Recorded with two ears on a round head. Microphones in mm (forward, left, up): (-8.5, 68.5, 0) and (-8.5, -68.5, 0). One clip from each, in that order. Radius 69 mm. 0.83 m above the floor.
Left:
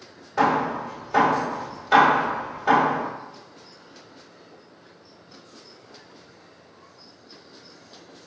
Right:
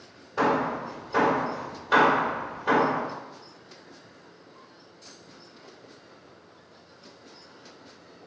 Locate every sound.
0.4 s hammering: 15° left (ahead or behind), 1.7 m